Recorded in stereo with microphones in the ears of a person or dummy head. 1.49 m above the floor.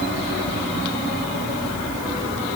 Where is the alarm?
I don't hear an alarm.